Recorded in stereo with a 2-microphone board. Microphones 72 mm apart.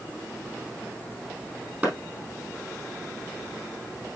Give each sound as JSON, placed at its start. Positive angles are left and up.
{"t": 1.8, "sound": "a clap", "side_deg": -20, "distance_m": 3.5}